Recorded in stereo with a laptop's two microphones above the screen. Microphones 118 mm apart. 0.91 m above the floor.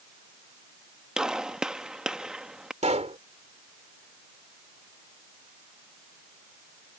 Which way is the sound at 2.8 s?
70° right (ahead or behind).